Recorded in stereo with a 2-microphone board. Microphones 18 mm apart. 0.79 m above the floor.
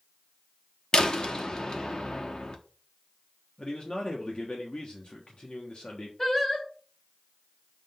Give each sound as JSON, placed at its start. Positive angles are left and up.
{"t": 0.9, "sound": "a door slam", "side_deg": 40, "distance_m": 0.9}
{"t": 3.6, "sound": "a man speaking", "side_deg": 55, "distance_m": 1.4}
{"t": 6.2, "sound": "singing", "side_deg": 25, "distance_m": 3.5}